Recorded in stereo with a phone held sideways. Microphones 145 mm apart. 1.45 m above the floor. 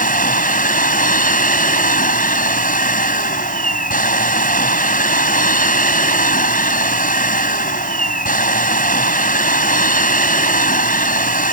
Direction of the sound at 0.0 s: 75° left (ahead or behind).